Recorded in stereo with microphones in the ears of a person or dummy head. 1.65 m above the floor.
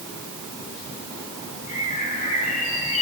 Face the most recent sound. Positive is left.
turn(degrees=40)  # may be behind; listen again after turning